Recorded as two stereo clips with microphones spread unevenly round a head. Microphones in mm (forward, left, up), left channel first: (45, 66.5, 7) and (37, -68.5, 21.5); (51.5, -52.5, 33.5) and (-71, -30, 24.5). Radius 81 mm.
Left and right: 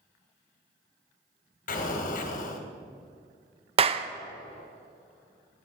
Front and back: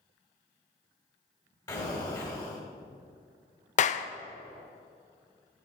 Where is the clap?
40° right, 0.5 m.